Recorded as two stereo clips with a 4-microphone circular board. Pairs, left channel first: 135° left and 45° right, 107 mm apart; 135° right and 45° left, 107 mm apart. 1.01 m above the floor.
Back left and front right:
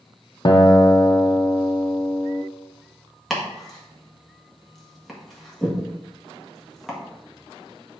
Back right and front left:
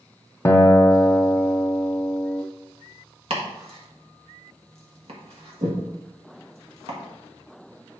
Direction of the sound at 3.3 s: 45° left.